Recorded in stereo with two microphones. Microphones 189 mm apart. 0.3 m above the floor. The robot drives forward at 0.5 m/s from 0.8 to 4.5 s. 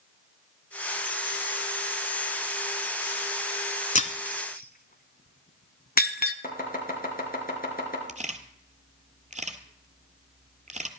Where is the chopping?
50° left (ahead or behind), 4 m.